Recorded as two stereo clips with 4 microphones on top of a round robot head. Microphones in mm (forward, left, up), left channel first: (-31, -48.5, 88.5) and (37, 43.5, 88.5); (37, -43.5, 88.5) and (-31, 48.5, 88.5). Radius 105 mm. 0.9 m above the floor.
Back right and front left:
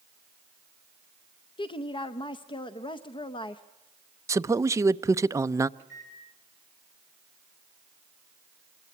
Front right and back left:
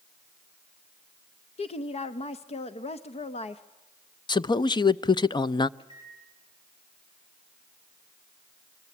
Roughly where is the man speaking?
Ahead.